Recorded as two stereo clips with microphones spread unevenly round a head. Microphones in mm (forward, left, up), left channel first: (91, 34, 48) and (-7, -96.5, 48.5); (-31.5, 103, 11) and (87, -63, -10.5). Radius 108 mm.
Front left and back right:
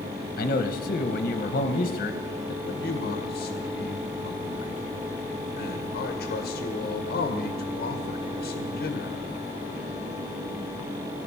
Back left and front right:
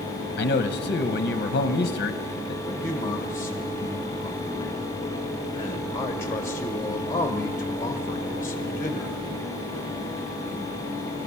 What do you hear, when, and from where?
0.4 s a man speaking: 85° left, 0.9 m
2.6 s a man speaking: 45° left, 1.5 m